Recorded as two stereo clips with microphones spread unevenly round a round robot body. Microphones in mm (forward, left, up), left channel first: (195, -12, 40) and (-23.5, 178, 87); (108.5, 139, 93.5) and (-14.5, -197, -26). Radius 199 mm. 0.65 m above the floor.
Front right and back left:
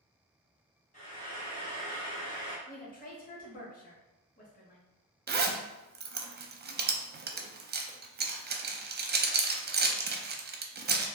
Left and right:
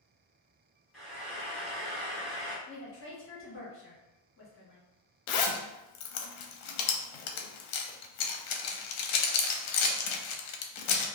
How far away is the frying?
About 1.1 m.